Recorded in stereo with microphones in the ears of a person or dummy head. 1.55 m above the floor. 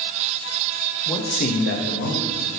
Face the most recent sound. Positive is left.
turn(degrees=85)